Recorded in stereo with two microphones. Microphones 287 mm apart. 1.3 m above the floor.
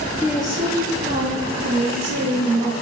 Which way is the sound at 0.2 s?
Centre (ahead or behind).